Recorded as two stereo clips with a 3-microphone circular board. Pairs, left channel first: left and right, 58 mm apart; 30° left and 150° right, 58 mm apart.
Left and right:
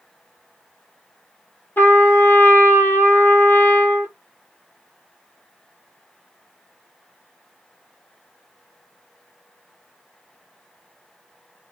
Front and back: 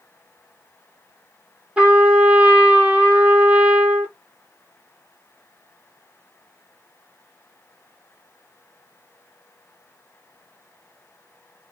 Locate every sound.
1.8 s a trumpet: 140° left, 0.9 m